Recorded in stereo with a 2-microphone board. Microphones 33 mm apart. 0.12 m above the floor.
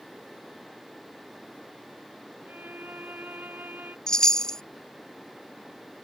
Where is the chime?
20° left (ahead or behind).